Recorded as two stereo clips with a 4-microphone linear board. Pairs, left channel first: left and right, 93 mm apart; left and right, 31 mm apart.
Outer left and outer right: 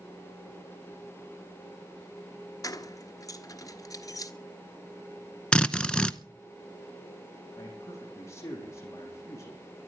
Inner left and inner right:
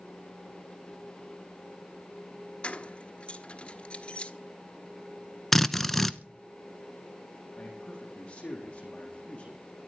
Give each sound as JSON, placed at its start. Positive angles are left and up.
{"t": 2.6, "sound": "keys jangling", "side_deg": 35, "distance_m": 1.1}
{"t": 5.5, "sound": "a drill", "side_deg": 10, "distance_m": 0.7}
{"t": 7.6, "sound": "a man speaking", "side_deg": 30, "distance_m": 6.5}